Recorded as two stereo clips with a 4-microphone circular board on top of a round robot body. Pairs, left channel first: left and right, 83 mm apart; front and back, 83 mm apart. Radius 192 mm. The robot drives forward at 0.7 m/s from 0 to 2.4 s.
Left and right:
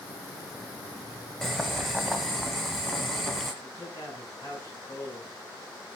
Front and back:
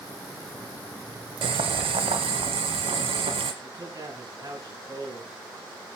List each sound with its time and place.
1.4 s boiling: straight behind, 0.7 m
3.6 s a man speaking: 140° left, 7.5 m